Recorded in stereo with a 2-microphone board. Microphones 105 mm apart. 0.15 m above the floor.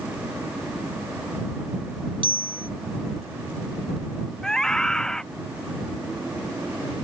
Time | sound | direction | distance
2.2 | a bicycle bell | 50° right (ahead or behind) | ?
4.4 | a scream | 5° left (ahead or behind) | ?